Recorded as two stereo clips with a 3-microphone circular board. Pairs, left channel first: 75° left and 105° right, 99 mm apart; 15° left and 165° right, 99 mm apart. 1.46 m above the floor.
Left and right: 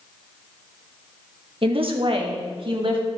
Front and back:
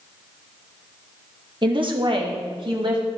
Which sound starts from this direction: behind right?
A woman speaking, at 1.6 s.